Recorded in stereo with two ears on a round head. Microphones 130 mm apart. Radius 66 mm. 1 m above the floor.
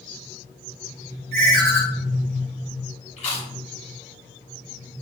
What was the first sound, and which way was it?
A ringtone, 45° right (ahead or behind).